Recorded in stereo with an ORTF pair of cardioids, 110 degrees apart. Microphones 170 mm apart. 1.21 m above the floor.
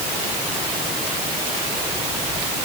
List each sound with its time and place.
Only background noise.